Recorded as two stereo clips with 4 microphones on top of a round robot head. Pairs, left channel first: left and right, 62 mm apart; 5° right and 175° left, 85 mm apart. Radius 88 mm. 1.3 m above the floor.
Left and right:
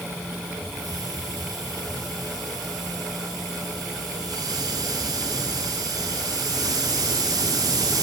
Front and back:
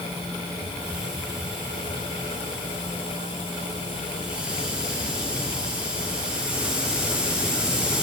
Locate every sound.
0.6 s a hiss: 105° right, 4 m